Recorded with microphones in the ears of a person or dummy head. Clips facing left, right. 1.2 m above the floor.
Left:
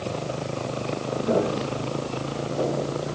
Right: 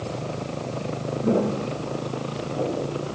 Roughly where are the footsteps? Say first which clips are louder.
Right 2 dB; right.